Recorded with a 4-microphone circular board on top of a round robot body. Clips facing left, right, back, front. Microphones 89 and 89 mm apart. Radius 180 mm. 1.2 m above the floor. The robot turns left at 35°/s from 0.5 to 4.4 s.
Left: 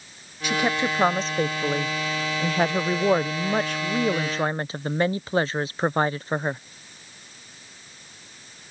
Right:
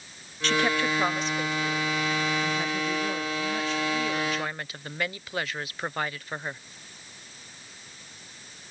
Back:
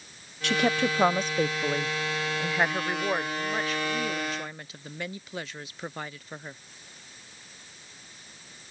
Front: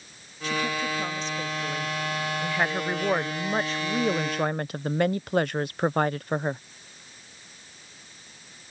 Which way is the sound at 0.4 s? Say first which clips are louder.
Left 1 dB, back 3 dB; 170° left.